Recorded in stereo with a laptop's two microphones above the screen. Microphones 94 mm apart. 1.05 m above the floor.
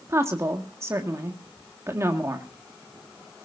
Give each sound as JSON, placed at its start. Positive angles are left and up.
{"t": 0.1, "sound": "a woman speaking", "side_deg": -30, "distance_m": 1.7}